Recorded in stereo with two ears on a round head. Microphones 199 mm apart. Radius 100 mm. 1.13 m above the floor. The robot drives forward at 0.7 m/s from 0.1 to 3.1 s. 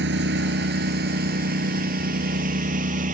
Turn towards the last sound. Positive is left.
turn(degrees=-40)  # may be behind; listen again after turning